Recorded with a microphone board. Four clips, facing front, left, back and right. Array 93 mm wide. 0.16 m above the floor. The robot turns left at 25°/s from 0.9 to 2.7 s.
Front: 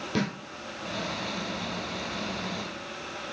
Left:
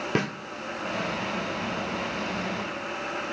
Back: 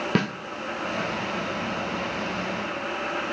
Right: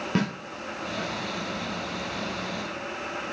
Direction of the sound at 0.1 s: 170° left.